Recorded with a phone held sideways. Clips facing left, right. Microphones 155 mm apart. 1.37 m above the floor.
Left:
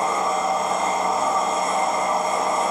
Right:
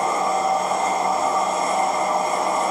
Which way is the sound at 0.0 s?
35° right (ahead or behind).